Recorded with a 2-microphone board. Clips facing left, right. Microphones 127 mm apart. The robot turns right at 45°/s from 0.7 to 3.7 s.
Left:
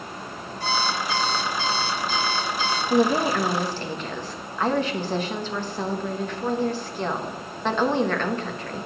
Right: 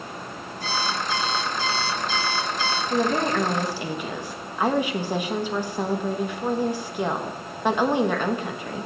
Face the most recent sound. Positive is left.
turn(degrees=-170)